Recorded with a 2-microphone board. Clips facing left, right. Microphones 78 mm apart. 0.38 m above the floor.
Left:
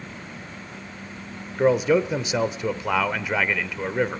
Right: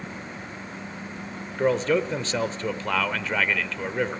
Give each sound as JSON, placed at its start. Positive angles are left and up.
{"t": 1.6, "sound": "a man speaking", "side_deg": 10, "distance_m": 0.8}